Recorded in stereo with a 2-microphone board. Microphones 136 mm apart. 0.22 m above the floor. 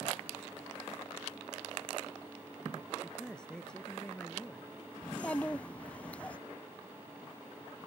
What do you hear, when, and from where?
3.0 s a man speaking: 5° left (ahead or behind)
5.0 s a child speaking: 10° left (ahead or behind)